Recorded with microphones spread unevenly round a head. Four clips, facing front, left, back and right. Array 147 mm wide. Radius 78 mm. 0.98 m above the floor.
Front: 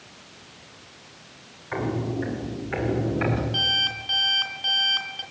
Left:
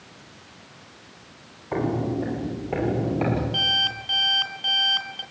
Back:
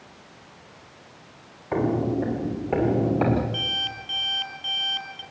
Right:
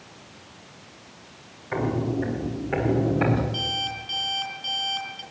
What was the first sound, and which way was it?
Footsteps, 165° left.